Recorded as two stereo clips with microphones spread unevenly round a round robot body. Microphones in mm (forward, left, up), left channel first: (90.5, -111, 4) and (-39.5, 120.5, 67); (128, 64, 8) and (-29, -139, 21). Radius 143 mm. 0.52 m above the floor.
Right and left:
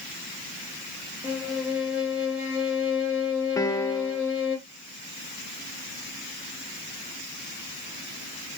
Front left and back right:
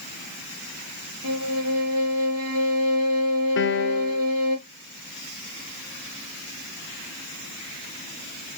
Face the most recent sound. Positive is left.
turn(degrees=10)